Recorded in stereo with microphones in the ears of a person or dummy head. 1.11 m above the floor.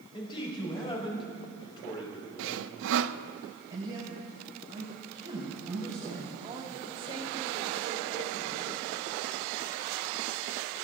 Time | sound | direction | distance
0.1 | a man speaking | 30° left (ahead or behind) | 5 m
2.4 | sawing | 70° right (ahead or behind) | 0.6 m
3.7 | a man speaking | 25° right (ahead or behind) | 5 m
6.4 | a woman speaking | 25° right (ahead or behind) | 3 m